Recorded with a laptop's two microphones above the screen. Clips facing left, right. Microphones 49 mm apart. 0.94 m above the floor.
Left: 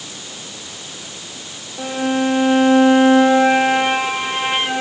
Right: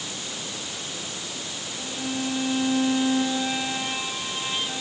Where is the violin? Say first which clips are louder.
Left 12 dB; 70° left (ahead or behind).